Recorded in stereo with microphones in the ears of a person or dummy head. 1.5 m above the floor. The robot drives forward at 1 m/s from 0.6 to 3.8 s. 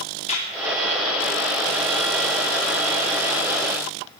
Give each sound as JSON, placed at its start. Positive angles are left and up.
{"t": 0.3, "sound": "a clap", "side_deg": 35, "distance_m": 3.5}